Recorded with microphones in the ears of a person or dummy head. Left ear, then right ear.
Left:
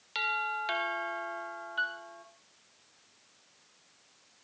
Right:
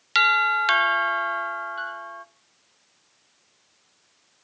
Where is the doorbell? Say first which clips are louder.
Right 13 dB; 50° right (ahead or behind), 0.6 m.